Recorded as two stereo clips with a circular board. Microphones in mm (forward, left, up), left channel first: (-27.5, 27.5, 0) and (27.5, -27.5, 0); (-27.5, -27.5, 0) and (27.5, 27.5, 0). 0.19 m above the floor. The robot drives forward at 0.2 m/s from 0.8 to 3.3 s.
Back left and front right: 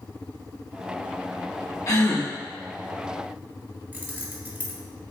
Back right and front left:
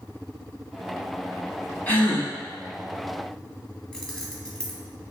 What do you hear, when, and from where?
1.9 s a gasp: 165° left, 1.0 m
3.9 s keys jangling: 65° right, 0.8 m